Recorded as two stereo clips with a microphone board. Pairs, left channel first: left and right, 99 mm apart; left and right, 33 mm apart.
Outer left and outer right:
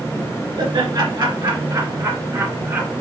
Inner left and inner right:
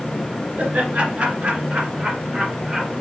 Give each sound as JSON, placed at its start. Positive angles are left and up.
{"t": 0.6, "sound": "laughter", "side_deg": -60, "distance_m": 2.5}